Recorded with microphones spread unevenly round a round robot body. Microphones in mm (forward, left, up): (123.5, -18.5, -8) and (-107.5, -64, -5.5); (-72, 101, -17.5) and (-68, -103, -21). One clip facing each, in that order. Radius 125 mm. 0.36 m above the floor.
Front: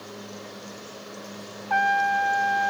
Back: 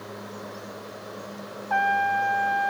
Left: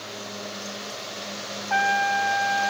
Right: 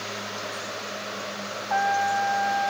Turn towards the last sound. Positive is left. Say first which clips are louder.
# front 1 dB, even
turn(degrees=50)